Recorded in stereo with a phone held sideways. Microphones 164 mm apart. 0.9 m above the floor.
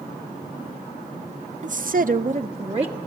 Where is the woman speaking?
50° right (ahead or behind), 0.5 m; by 3.0 s 35° right (ahead or behind), 1.3 m.